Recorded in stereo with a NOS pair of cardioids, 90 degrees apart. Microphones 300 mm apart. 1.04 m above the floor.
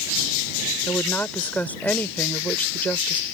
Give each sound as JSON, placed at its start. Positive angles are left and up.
{"t": 0.9, "sound": "a woman speaking", "azimuth_deg": 5}